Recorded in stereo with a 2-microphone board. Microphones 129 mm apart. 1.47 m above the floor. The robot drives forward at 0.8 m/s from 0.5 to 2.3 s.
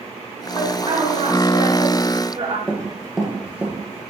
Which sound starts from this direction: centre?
Running footsteps, at 2.7 s.